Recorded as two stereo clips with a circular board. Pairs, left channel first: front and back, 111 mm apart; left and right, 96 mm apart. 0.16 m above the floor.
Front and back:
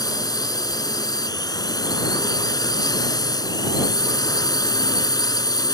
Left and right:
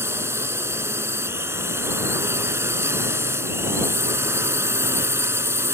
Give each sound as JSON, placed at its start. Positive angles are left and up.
{"t": 0.0, "sound": "a drone", "azimuth_deg": -35}